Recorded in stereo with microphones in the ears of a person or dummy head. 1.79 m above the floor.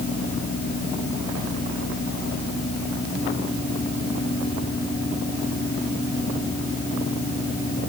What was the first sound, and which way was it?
Only background noise.